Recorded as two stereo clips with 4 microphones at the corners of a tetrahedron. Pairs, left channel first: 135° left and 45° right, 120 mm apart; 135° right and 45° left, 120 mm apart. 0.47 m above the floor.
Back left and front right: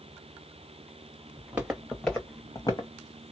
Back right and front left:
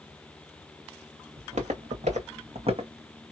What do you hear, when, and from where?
1.4 s footsteps: 30° left, 2 m; by 2.9 s 85° left, 1.7 m